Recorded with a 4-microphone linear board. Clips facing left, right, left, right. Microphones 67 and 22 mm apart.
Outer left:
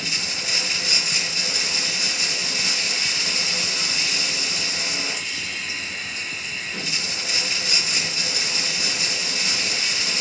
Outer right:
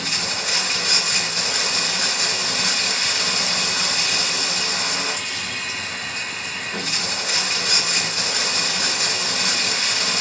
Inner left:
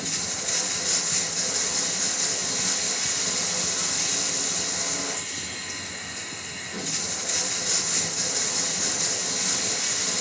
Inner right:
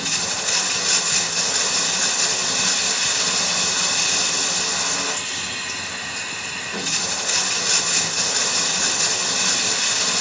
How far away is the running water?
About 1.0 m.